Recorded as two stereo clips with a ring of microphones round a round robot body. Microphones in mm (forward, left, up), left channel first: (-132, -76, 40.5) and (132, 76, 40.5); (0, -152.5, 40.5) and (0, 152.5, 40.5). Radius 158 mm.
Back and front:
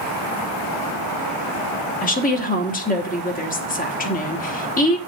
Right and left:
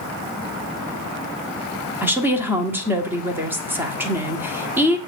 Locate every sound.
2.0 s a woman speaking: 170° left, 1.3 m